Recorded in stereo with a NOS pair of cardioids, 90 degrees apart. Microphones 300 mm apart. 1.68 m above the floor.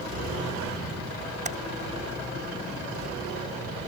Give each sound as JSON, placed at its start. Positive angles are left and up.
{"t": 1.4, "sound": "typing on a keyboard", "azimuth_deg": -25}